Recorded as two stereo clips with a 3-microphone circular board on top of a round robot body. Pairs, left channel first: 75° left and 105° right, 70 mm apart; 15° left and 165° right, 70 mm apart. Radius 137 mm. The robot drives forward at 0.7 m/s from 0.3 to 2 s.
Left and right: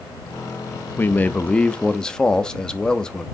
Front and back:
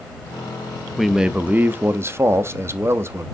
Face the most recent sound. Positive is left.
turn(degrees=155)